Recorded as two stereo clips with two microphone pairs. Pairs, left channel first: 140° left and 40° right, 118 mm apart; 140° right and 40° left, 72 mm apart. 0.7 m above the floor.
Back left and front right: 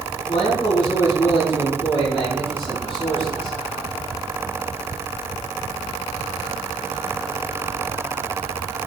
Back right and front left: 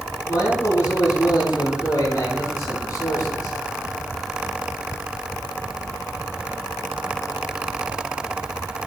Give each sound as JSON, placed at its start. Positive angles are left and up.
{"t": 0.3, "sound": "a man speaking", "azimuth_deg": 180, "distance_m": 6.0}